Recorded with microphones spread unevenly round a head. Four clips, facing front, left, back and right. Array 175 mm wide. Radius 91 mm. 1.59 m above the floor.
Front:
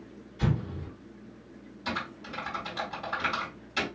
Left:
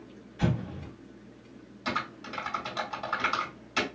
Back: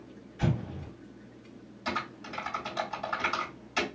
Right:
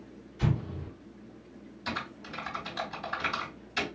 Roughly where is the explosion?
Left.